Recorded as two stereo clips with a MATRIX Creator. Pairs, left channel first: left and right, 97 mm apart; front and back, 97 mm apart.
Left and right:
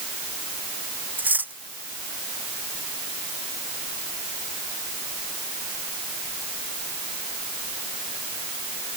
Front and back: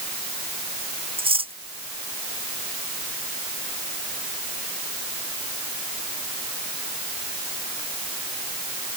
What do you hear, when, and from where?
1.2 s cutlery clinking: 165° right